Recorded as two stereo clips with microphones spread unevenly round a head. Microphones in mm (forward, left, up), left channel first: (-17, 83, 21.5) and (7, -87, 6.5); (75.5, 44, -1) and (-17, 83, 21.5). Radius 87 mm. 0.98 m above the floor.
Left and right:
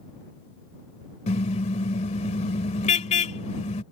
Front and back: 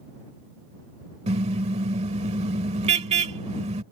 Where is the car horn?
150° left.